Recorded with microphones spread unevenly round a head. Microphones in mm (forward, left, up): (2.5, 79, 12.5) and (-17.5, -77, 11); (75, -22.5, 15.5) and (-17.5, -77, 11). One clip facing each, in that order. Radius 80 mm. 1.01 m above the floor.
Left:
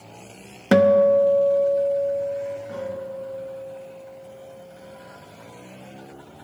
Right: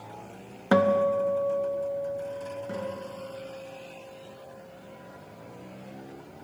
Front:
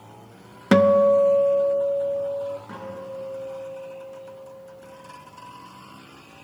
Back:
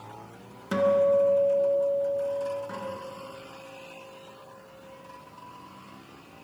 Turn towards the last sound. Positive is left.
turn(degrees=-55)